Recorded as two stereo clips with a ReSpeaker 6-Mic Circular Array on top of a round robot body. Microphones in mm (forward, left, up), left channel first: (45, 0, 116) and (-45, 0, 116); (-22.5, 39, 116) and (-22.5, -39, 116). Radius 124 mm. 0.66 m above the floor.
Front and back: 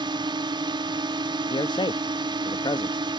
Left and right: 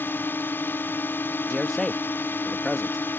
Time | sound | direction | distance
0.0 | a drone | 150° left | ?
1.5 | a man speaking | 5° left | ?